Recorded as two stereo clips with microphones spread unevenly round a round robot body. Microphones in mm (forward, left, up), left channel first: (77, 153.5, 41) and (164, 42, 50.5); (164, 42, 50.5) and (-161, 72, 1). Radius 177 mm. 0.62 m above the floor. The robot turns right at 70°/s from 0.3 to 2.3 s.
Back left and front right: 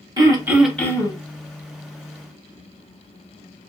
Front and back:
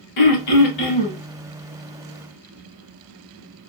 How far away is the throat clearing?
About 0.8 m.